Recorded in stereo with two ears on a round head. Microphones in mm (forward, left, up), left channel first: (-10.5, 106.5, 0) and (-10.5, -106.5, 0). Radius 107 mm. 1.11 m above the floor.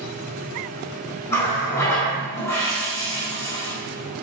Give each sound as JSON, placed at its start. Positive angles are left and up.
{"t": 1.3, "sound": "a running tap", "side_deg": 10, "distance_m": 1.8}